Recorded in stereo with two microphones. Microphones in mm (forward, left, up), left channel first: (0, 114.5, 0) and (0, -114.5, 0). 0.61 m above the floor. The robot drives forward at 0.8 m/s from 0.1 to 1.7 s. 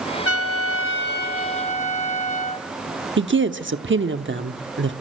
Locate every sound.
0.2 s a trumpet: 70° left (ahead or behind), 0.6 m; by 2.7 s 30° left (ahead or behind), 1.1 m
3.2 s a woman speaking: 55° right (ahead or behind), 1.0 m